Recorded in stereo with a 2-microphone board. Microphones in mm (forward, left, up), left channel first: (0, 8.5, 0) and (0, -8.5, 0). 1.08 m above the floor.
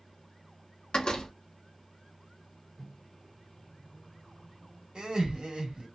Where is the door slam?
70° left (ahead or behind), 0.8 m.